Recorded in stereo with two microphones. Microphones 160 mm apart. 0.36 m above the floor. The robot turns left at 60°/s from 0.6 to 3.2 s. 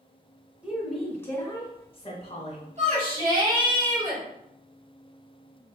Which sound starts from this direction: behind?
A woman speaking, at 0.6 s.